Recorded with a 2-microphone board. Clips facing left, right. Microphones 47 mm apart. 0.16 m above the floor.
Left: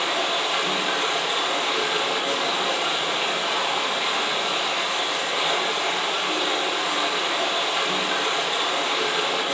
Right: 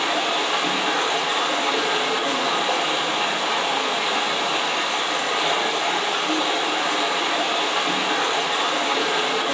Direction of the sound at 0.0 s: 55° right (ahead or behind).